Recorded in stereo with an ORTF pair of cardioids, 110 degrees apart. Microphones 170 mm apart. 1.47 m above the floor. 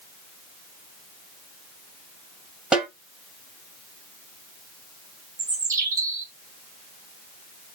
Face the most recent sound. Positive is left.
turn(degrees=-20)